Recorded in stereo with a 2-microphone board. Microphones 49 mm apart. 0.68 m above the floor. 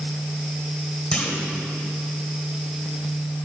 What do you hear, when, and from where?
1.1 s a clunk: 20° left (ahead or behind), 2 m